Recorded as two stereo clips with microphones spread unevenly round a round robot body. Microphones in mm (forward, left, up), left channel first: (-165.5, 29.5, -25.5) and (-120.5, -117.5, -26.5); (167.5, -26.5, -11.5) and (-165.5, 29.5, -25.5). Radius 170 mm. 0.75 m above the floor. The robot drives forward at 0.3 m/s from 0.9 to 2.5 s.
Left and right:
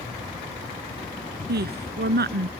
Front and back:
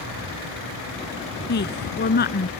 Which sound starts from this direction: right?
A woman speaking, at 1.5 s.